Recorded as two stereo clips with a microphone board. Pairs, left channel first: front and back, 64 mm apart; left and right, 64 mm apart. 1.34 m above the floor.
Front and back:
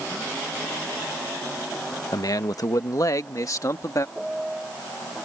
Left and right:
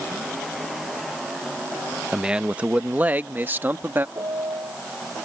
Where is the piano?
95° right.